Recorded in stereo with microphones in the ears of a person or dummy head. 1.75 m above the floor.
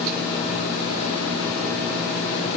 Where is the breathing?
I don't hear breathing.